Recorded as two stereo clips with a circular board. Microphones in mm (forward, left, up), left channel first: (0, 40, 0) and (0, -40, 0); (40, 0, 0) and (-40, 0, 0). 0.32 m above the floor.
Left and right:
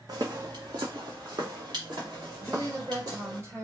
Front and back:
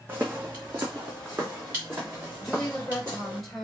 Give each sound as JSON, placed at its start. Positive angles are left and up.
{"t": 0.1, "sound": "footsteps", "azimuth_deg": -115, "distance_m": 0.8}
{"t": 2.4, "sound": "a woman speaking", "azimuth_deg": -80, "distance_m": 1.6}